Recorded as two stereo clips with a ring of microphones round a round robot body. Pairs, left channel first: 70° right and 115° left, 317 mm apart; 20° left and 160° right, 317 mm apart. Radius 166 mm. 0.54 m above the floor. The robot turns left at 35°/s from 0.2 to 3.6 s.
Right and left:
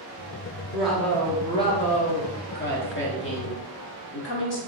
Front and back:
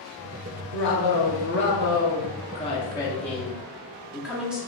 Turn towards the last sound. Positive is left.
turn(degrees=-70)